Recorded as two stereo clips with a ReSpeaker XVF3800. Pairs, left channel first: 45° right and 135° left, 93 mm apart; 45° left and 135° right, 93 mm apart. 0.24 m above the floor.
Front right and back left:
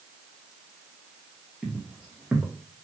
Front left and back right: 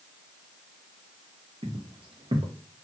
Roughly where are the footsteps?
Behind right.